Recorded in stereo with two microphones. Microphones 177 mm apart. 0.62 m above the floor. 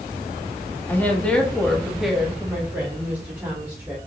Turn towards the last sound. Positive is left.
turn(degrees=-15)  # may be behind; listen again after turning